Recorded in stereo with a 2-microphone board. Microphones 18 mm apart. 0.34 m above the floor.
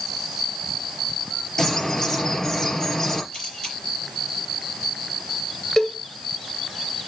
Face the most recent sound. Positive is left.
turn(degrees=30)  # may be behind; listen again after turning